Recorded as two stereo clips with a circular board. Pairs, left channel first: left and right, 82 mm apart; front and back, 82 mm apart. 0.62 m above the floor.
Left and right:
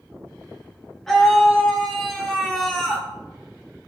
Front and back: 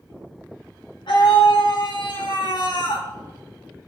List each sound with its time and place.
1.1 s a scream: 5° left, 5.5 m